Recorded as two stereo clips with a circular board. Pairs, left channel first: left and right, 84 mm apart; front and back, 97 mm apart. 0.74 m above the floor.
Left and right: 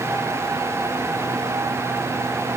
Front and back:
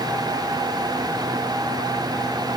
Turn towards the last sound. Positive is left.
No sound to turn to.